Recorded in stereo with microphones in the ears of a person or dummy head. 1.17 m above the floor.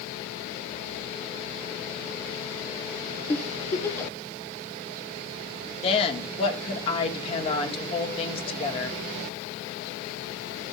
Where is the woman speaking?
35° left (ahead or behind), 1.7 m.